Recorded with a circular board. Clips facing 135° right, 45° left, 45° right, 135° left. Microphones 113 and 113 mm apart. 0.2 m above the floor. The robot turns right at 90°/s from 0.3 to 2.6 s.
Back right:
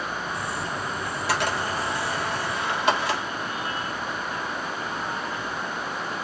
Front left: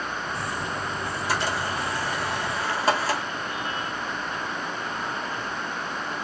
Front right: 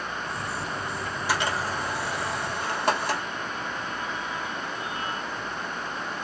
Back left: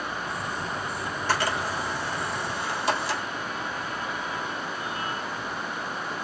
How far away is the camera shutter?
About 1.9 m.